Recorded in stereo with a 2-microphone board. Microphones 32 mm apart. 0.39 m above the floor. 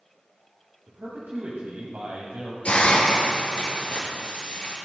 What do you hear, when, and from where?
0.9 s a man speaking: 65° right (ahead or behind), 1.9 m
2.6 s a hiss: 45° left (ahead or behind), 3.5 m